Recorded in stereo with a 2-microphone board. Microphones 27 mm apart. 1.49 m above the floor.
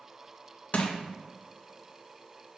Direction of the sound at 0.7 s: 55° left (ahead or behind).